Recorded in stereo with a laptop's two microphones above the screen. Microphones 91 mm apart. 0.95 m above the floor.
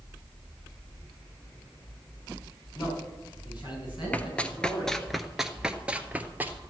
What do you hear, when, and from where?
2.8 s a man speaking: 50° left (ahead or behind), 6.5 m; by 5.0 s 55° left (ahead or behind), 9 m
4.1 s running footsteps: 15° left (ahead or behind), 1.0 m; by 6.6 s 20° right (ahead or behind), 1.2 m